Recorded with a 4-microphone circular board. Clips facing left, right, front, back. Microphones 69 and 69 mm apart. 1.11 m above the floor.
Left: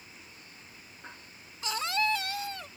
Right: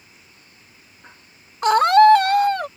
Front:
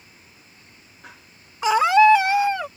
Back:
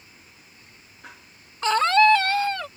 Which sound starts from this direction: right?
A scream, at 1.6 s.